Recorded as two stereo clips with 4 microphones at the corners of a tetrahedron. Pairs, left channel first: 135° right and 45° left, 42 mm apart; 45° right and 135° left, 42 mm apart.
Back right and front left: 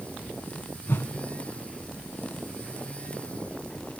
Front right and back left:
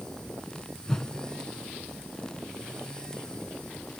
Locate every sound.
0.9 s a whoosh: 115° right, 0.9 m